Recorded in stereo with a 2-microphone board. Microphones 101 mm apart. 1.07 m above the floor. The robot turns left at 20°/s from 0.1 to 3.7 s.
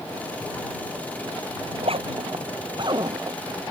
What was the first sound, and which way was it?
A zipper, 70° right (ahead or behind).